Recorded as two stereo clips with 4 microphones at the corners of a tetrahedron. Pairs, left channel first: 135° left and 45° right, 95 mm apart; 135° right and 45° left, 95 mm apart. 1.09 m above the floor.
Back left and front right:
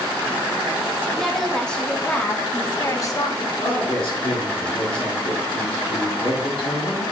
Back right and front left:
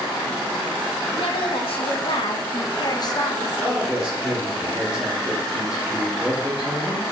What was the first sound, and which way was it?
A woman speaking, 140° right.